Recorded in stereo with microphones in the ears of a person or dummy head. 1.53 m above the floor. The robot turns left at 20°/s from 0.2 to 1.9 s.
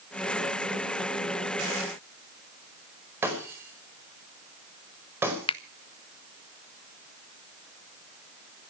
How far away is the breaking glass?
About 5 m.